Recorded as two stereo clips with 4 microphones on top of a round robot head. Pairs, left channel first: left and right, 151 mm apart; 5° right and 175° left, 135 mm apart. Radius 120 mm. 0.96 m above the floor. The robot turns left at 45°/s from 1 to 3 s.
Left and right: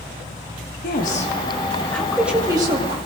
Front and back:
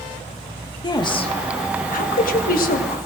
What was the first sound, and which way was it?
A woman speaking, 50° left.